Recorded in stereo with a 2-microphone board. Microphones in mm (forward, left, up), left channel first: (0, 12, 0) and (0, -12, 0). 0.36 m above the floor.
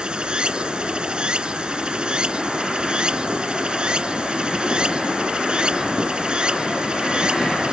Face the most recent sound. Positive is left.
turn(degrees=-40)  # may be behind; listen again after turning